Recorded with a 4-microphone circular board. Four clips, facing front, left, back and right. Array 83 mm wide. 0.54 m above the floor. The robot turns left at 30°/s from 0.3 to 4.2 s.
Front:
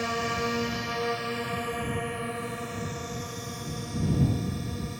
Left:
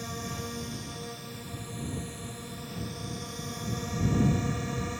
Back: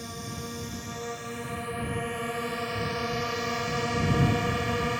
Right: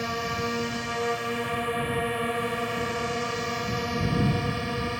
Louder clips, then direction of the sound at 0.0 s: Right 9 dB, front 10 dB; 40° right.